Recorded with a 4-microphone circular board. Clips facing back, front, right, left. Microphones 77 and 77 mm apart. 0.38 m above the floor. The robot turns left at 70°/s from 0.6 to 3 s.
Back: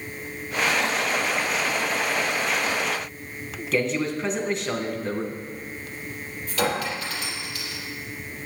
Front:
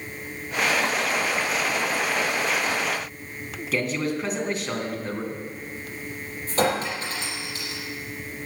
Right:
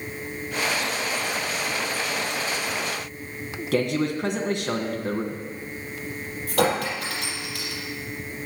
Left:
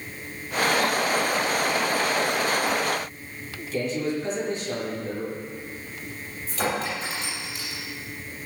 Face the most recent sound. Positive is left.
turn(degrees=-60)